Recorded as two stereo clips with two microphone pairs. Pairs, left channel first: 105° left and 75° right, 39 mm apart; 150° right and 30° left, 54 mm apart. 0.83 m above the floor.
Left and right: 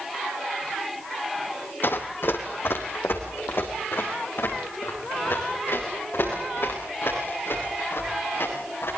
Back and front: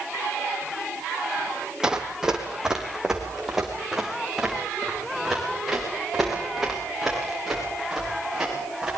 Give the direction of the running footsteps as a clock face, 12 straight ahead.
8 o'clock.